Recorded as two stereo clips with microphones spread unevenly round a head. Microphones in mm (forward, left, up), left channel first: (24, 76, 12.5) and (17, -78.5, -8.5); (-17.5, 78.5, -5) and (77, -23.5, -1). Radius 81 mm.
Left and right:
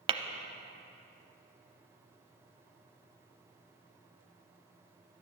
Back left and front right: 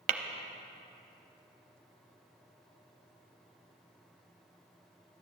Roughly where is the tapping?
Ahead right.